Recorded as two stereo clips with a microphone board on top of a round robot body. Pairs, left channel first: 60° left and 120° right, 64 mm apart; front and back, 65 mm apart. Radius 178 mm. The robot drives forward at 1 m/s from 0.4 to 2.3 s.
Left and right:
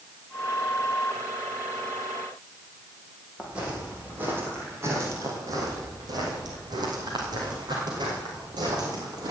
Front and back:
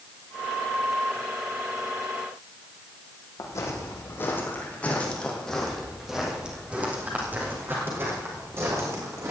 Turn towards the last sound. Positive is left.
turn(degrees=-135)